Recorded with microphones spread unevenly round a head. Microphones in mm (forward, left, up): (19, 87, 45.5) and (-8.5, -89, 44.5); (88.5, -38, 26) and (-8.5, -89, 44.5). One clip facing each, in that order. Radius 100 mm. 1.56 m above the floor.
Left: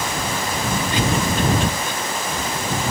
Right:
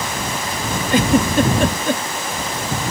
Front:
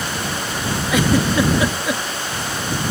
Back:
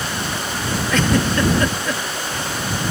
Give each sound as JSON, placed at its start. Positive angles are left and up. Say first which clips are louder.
{"t": 0.9, "sound": "a giggle", "louder": "right 9 dB, front 2 dB", "azimuth_deg": -55}